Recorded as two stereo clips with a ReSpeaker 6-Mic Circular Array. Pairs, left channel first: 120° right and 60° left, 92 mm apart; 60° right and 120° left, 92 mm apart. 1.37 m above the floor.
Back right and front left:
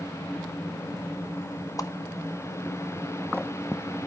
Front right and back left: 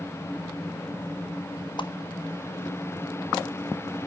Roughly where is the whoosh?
Right.